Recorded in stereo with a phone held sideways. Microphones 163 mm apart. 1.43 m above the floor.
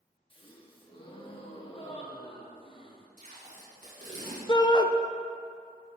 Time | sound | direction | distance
0.3 | a gasp | 35° left (ahead or behind) | 0.9 m
3.2 | tape being pulled | 50° right (ahead or behind) | 2 m
4.5 | a shout | 25° left (ahead or behind) | 0.5 m